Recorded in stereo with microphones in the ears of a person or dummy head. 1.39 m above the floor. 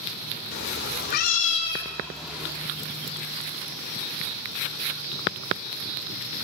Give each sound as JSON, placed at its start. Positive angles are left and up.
{"t": 0.5, "sound": "a cat meowing", "side_deg": 60, "distance_m": 2.0}